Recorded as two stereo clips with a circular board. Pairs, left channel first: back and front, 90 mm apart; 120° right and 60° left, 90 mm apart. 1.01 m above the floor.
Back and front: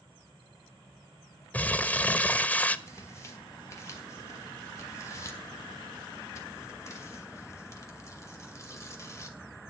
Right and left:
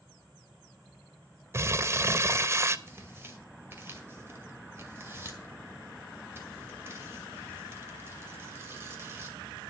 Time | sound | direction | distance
1.5 | crumpling | 110° left | 0.6 m
2.9 | tearing paper | 125° left | 2 m